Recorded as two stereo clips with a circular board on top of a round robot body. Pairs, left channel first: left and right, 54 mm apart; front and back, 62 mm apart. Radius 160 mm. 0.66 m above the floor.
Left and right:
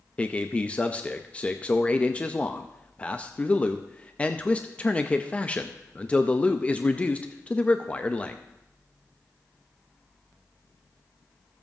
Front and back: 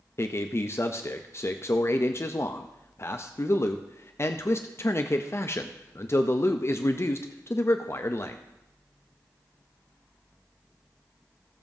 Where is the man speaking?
30° left, 0.7 m.